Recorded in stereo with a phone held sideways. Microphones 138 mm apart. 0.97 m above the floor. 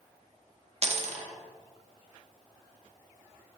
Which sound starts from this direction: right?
A dropped coin, at 0.8 s.